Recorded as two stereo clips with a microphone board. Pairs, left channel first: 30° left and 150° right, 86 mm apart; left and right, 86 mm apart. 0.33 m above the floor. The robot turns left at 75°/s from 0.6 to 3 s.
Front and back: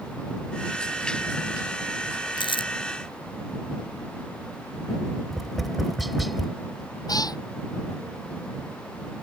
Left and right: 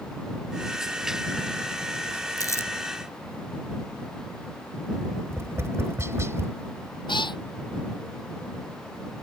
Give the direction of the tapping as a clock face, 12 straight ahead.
2 o'clock.